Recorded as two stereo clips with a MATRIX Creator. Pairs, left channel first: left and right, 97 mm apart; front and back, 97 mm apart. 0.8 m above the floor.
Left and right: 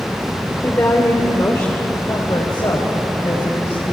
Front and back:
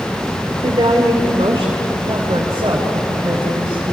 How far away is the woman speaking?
About 2.5 m.